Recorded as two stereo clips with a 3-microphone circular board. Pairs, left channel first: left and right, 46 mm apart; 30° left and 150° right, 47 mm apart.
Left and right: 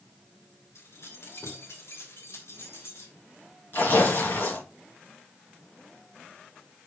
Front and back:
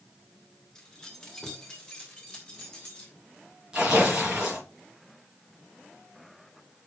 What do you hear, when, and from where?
0.8 s keys jangling: 105° left, 2.0 m; by 3.1 s 100° left, 4 m
3.7 s tearing paper: 135° left, 5 m